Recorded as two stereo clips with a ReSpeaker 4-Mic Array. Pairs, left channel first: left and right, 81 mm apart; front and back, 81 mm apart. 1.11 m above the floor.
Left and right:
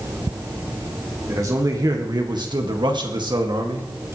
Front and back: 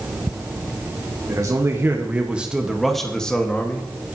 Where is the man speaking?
135° right, 1.8 m; by 3.9 s 70° right, 2.5 m.